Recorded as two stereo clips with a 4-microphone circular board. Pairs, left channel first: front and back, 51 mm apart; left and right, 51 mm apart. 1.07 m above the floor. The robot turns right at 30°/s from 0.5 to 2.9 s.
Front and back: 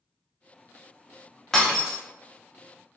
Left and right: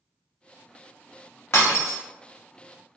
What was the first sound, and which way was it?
Breaking glass, 80° left.